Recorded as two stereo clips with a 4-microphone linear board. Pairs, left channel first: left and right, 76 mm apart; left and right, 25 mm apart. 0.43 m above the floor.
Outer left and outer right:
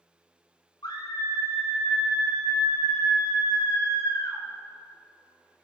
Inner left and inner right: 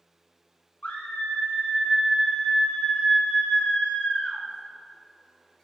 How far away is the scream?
About 3.5 m.